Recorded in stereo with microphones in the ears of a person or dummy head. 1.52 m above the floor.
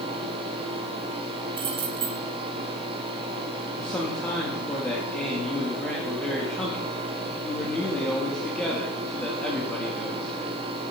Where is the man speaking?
10° left (ahead or behind), 2 m.